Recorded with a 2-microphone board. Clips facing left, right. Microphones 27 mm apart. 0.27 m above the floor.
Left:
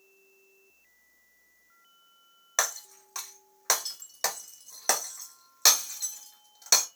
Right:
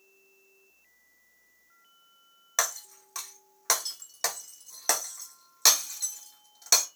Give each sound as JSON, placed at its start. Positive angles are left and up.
{"t": 2.6, "sound": "breaking glass", "side_deg": 5, "distance_m": 0.5}